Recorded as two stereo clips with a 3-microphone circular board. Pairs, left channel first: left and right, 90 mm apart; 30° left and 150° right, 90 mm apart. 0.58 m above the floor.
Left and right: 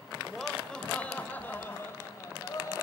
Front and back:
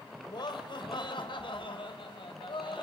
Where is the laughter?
5° left, 3 m; by 2.8 s 45° left, 3.5 m.